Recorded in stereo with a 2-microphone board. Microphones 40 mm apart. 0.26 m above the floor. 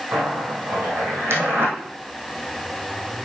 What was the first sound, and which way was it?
A zipper, 75° right (ahead or behind).